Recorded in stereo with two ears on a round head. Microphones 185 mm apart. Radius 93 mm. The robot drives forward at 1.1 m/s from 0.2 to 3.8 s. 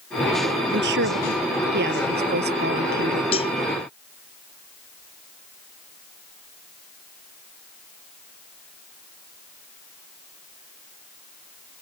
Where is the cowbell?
30° left (ahead or behind).